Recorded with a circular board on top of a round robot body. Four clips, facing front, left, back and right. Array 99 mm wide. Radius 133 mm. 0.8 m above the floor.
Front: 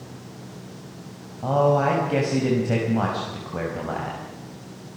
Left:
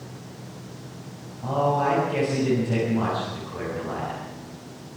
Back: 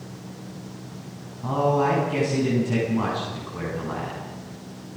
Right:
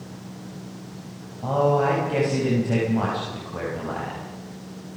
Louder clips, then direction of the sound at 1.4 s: Right 2 dB, front 2 dB; 20° right.